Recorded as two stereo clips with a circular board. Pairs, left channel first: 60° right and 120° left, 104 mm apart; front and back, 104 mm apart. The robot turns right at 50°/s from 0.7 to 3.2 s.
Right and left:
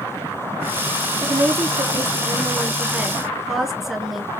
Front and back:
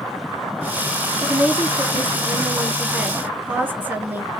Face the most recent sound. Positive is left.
turn(degrees=-160)